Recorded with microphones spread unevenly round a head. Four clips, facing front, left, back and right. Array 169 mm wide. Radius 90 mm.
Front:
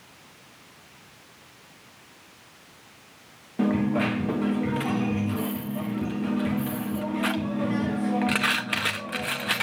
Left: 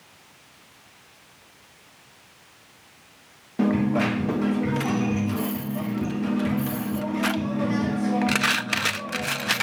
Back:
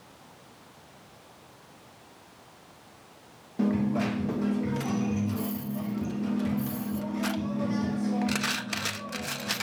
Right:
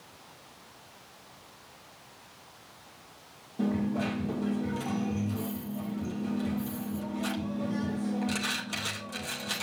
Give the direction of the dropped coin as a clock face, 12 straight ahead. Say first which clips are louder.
Left 8 dB, front 3 dB; 10 o'clock.